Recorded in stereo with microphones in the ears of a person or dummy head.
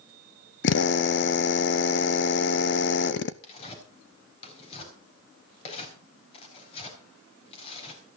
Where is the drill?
60° left (ahead or behind), 0.8 m.